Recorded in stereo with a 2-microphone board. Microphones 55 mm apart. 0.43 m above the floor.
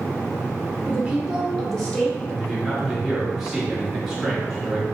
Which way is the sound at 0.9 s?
30° right (ahead or behind).